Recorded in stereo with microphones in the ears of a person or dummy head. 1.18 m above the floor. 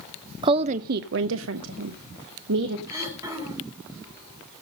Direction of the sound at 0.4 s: 25° right (ahead or behind).